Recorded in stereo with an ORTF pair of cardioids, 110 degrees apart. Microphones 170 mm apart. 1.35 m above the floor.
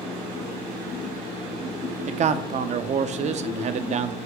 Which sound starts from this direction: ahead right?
A man speaking, at 2.1 s.